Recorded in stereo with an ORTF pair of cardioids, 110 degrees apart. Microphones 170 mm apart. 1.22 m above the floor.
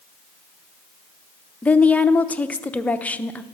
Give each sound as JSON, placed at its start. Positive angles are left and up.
{"t": 1.6, "sound": "a woman speaking", "azimuth_deg": 10, "distance_m": 0.5}